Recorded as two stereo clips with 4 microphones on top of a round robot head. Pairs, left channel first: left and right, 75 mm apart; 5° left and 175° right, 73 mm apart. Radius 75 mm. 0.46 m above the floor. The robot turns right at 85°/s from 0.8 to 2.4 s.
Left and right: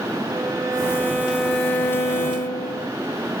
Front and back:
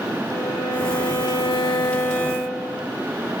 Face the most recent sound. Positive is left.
turn(degrees=85)